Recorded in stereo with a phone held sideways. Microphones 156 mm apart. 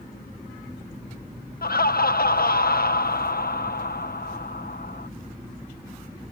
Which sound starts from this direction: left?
Laughter, at 1.6 s.